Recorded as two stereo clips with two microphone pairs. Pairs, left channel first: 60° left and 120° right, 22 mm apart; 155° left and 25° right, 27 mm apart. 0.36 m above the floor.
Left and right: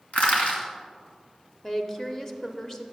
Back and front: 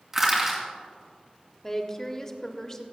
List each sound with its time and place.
0.1 s crushing: 50° left, 2.5 m
1.6 s a woman speaking: 115° left, 0.9 m